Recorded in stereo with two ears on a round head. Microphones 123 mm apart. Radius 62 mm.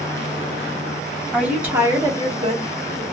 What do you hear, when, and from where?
1.3 s a woman speaking: 5° right (ahead or behind), 1.3 m; by 3.0 s 45° right (ahead or behind), 1.3 m